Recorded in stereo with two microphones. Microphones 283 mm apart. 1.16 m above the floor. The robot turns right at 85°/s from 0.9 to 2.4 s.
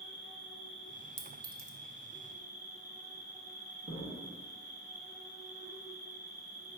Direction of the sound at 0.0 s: 95° left.